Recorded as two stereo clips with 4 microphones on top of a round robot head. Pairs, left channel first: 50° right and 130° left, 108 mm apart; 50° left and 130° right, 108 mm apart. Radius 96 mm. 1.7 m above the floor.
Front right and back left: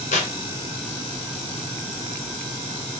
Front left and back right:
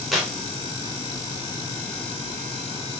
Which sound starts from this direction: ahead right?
Tearing paper, at 0.1 s.